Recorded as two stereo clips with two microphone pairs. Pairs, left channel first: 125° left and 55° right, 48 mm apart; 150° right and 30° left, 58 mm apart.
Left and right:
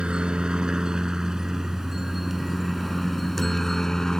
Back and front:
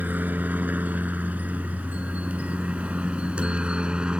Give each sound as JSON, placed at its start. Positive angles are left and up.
{"t": 0.0, "sound": "a helicopter", "azimuth_deg": 0}